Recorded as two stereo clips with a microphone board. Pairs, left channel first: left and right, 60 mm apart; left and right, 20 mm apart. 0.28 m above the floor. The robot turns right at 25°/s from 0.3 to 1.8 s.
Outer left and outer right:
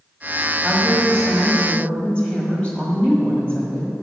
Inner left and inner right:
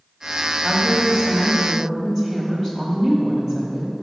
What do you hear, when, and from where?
0.6 s a woman speaking: centre (ahead or behind), 1.4 m; by 3.9 s 20° left (ahead or behind), 1.4 m